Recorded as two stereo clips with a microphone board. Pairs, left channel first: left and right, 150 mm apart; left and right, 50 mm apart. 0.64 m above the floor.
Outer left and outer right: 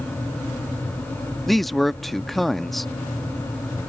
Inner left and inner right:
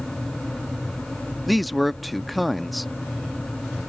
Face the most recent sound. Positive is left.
turn(degrees=0)  # may be behind; listen again after turning